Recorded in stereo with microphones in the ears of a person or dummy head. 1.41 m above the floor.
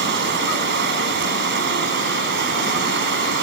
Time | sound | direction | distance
0.0 | running water | 55° right (ahead or behind) | ?